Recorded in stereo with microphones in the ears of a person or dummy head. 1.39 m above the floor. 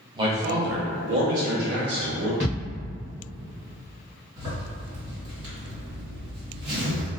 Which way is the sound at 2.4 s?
15° right (ahead or behind).